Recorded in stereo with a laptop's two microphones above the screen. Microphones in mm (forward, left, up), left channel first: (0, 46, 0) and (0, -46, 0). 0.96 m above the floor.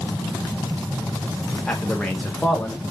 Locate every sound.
1.7 s a man speaking: 10° left (ahead or behind), 0.8 m